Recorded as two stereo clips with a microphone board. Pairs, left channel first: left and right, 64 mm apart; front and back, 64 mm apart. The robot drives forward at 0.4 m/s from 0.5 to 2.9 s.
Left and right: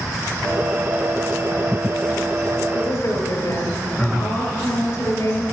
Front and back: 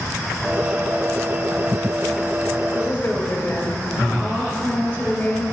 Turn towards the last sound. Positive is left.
turn(degrees=70)